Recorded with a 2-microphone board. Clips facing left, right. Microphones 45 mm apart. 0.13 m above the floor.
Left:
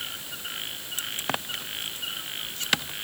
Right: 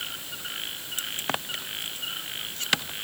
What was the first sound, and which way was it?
Only background noise.